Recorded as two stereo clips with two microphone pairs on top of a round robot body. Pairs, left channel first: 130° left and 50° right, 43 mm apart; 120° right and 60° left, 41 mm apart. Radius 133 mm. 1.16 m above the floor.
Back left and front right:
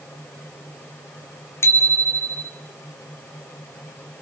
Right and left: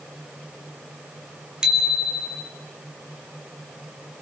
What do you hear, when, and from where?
1.6 s a bicycle bell: 135° left, 3 m